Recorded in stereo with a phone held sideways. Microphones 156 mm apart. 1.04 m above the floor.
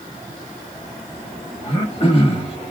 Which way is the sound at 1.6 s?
40° left (ahead or behind).